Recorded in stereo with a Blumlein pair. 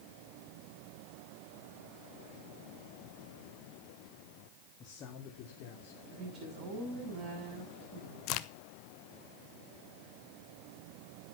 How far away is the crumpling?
No crumpling in this recording.